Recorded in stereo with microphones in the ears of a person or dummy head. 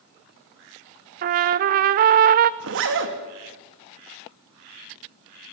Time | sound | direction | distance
1.2 | a trumpet | 40° right (ahead or behind) | 0.6 m
2.6 | a zipper | 70° right (ahead or behind) | 2.5 m